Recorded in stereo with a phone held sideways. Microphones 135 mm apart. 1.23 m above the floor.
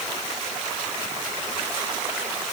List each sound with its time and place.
Only background noise.